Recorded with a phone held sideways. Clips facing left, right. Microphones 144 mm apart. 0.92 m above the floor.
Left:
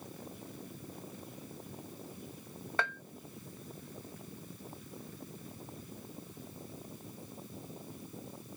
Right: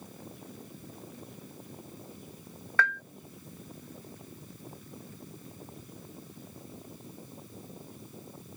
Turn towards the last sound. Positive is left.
turn(degrees=20)  # may be behind; listen again after turning